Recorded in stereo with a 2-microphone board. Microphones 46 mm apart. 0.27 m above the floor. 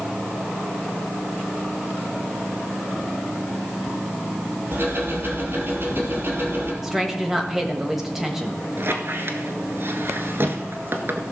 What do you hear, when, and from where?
4.7 s ticking: 45° right (ahead or behind), 3 m
6.8 s a woman speaking: 5° right (ahead or behind), 1.4 m
8.8 s a squeak: 50° right (ahead or behind), 1.1 m